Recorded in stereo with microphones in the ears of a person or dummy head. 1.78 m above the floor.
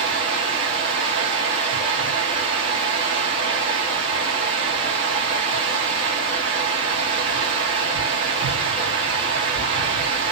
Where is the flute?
I don't hear a flute.